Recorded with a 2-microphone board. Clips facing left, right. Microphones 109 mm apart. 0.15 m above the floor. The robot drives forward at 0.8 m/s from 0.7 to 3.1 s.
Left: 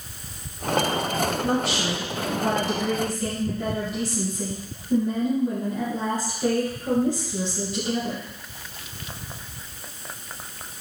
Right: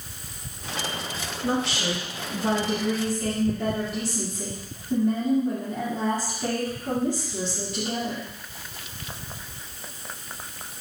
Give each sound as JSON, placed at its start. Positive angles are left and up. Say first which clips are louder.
{"t": 1.4, "sound": "a woman speaking", "louder": "left 2 dB", "side_deg": 10, "distance_m": 1.4}